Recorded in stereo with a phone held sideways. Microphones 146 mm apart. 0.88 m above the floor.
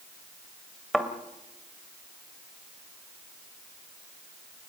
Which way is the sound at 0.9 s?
Centre (ahead or behind).